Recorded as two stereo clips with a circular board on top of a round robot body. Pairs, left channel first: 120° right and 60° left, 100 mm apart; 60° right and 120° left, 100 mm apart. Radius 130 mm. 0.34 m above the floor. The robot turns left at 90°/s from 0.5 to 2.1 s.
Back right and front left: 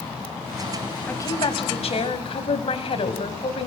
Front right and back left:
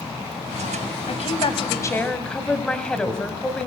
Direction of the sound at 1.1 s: 50° right.